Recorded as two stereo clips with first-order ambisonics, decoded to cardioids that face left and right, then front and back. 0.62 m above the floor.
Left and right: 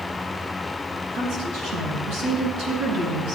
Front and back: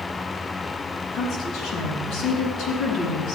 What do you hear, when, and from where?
1.1 s a woman speaking: 60° right, 6 m